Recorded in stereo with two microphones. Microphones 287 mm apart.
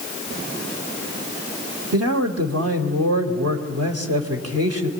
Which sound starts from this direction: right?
A man speaking, at 1.9 s.